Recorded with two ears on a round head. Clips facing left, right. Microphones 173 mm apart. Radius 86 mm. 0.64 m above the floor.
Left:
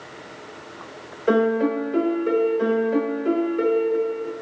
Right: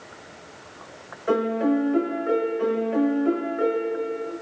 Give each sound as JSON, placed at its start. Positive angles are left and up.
{"t": 1.3, "sound": "a piano", "side_deg": 45, "distance_m": 0.6}